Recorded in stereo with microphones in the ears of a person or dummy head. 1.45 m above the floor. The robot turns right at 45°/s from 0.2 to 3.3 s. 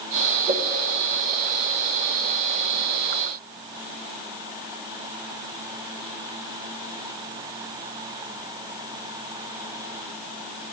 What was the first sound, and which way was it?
A whoosh, 35° right (ahead or behind).